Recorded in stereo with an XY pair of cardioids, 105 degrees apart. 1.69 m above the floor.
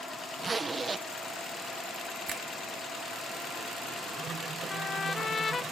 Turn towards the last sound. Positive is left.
turn(degrees=30)